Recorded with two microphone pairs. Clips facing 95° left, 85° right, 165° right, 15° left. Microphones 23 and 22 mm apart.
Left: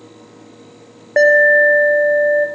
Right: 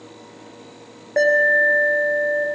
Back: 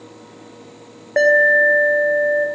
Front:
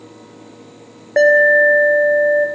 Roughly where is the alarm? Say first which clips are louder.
Left 6 dB, front 2 dB; left.